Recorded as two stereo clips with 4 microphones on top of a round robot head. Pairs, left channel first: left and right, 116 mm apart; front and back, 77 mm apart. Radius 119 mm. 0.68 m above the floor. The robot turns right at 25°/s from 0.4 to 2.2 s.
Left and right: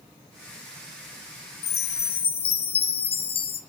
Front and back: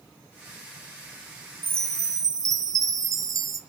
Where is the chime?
115° left, 0.6 m; by 3.6 s 130° left, 0.6 m.